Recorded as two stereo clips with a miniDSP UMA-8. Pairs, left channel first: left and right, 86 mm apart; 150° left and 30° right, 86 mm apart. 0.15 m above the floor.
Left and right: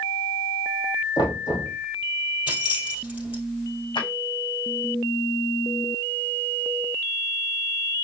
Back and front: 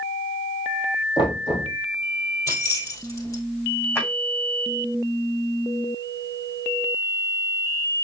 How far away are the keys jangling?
About 2.5 m.